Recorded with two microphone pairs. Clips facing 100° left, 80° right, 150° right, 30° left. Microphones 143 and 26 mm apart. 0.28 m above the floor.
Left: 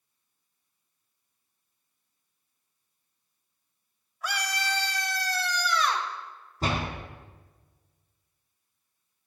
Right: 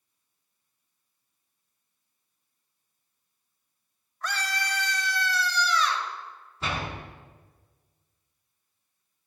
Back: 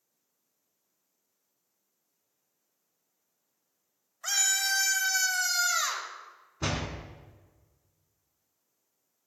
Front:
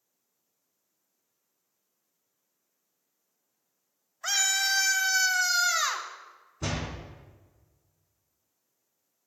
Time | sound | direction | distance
4.2 | a scream | 40° left | 1.1 m
6.6 | a door slam | 145° left | 2.5 m